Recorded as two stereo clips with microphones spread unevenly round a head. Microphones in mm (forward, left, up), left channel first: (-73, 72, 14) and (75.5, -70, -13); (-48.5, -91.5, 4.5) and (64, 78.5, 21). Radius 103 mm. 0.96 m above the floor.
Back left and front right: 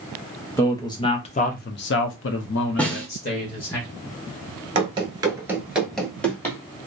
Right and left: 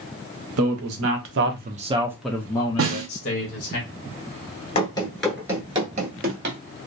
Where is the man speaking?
55° left, 1.0 m; by 3.8 s 165° right, 1.2 m.